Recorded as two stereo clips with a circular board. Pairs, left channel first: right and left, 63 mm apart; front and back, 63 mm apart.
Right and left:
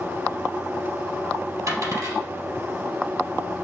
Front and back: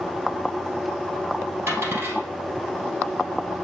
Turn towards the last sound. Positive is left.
turn(degrees=130)